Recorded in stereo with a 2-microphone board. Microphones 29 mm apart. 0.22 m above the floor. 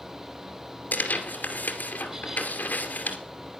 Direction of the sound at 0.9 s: 65° left (ahead or behind).